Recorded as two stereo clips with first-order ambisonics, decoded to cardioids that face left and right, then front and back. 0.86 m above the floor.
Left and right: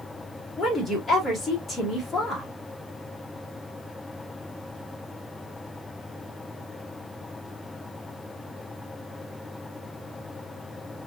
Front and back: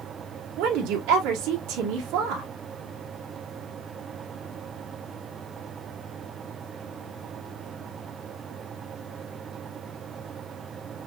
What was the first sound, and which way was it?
A woman speaking, 170° left.